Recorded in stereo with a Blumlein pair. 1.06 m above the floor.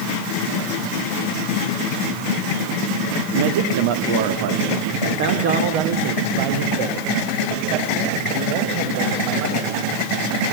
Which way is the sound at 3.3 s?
55° right.